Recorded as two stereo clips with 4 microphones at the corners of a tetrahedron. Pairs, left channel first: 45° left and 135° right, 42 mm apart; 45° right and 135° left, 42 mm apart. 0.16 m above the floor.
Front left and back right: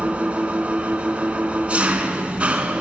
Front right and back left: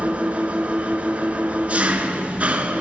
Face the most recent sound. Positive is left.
turn(degrees=180)